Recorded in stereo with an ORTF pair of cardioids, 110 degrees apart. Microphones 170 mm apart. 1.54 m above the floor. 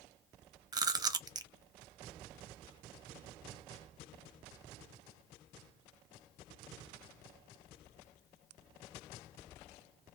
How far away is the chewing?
About 0.6 m.